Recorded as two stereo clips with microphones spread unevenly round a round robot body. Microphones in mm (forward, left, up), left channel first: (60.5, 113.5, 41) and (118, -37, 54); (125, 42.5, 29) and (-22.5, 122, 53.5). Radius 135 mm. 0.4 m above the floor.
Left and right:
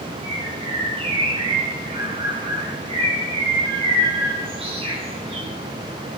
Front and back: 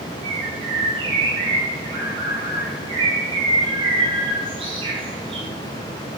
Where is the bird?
140° right, 2.0 m.